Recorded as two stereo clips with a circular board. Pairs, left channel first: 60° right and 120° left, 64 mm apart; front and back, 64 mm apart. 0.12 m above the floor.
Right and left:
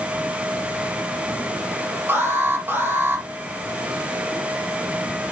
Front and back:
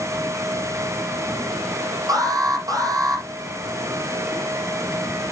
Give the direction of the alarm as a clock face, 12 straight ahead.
6 o'clock.